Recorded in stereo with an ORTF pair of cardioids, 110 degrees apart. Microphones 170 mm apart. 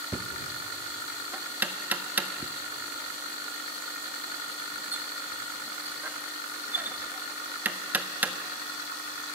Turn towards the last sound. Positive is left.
turn(degrees=-10)